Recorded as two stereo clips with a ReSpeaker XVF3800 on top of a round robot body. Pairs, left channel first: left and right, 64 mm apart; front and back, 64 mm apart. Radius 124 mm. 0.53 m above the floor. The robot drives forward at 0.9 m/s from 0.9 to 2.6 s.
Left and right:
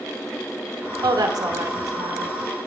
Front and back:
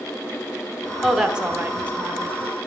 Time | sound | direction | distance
1.0 | a woman speaking | 90° right | 1.5 m